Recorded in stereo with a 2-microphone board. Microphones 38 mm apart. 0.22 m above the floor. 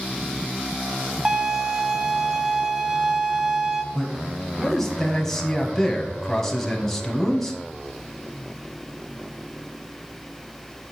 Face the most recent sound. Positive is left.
turn(degrees=10)  # may be behind; listen again after turning